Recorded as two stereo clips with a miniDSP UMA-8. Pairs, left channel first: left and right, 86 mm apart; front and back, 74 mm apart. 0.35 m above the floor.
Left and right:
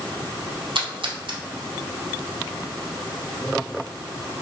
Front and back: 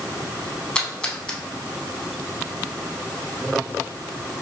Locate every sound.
0.8 s a splash: 75° right, 0.6 m